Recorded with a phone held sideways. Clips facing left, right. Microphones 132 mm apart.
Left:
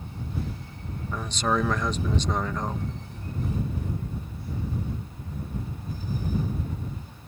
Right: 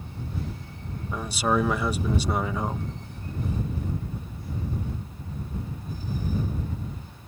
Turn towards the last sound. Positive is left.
turn(degrees=-10)  # may be behind; listen again after turning